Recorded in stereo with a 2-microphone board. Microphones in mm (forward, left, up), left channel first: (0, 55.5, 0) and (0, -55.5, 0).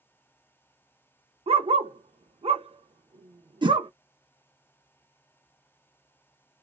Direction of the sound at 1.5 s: 60° right (ahead or behind).